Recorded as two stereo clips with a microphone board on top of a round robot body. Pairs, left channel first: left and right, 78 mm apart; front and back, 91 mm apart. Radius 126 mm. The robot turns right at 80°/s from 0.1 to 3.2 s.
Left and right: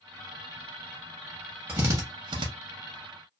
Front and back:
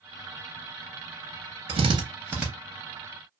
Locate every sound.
1.7 s a drill: 160° right, 0.6 m; by 2.5 s 95° right, 0.6 m